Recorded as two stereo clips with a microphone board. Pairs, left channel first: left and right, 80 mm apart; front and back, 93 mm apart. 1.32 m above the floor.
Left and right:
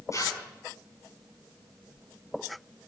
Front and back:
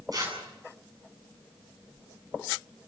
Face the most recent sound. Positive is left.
turn(degrees=135)